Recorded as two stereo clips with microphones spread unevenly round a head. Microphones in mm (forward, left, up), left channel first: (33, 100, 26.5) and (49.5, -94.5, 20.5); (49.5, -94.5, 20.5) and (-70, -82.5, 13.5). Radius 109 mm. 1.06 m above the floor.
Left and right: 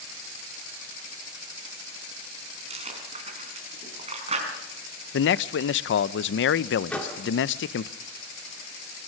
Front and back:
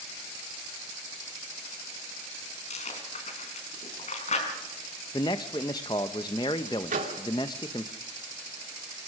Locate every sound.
2.7 s chewing: 25° right, 4.5 m
5.1 s a man speaking: 65° left, 0.5 m
6.9 s a microwave: straight behind, 2 m